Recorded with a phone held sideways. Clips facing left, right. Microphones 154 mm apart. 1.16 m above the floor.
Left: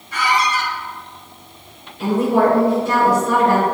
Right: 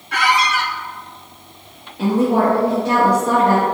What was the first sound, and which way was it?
A squeak, 70° right (ahead or behind).